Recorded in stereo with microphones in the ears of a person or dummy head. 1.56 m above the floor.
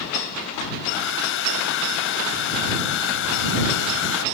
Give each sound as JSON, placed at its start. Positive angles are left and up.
{"t": 0.8, "sound": "a hair dryer", "side_deg": 70}